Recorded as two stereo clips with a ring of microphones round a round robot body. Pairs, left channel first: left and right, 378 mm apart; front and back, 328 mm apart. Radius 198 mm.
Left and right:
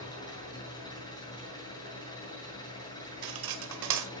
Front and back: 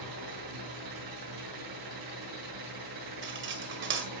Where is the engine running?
170° left, 7 m.